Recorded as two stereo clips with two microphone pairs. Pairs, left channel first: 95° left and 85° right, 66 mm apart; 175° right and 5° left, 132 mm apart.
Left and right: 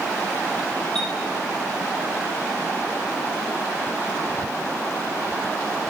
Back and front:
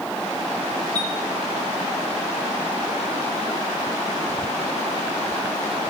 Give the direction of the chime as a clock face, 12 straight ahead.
6 o'clock.